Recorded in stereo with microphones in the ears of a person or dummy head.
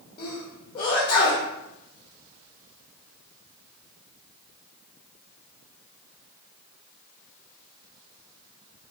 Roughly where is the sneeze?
Left.